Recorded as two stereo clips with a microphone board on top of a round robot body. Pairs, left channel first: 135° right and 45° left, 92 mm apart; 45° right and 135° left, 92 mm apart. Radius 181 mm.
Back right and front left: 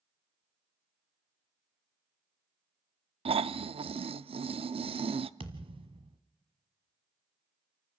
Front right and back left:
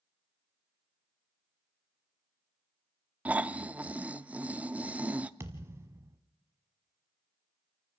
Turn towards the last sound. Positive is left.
turn(degrees=70)